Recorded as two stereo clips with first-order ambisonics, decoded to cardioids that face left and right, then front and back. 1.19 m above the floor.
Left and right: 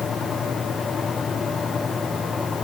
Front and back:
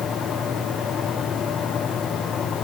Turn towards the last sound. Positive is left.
No sound to turn to.